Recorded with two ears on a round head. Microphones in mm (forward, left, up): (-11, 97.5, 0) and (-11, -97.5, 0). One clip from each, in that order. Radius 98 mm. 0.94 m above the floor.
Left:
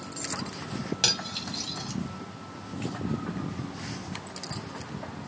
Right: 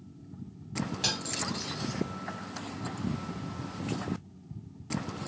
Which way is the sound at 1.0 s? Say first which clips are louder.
Left 5 dB; 35° left (ahead or behind).